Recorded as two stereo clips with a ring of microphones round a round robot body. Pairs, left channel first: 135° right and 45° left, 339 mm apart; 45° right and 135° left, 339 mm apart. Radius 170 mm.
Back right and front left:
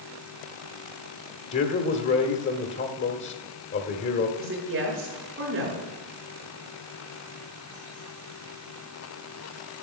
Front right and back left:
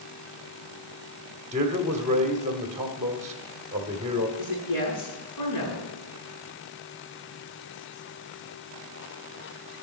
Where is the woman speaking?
10° right, 6 m.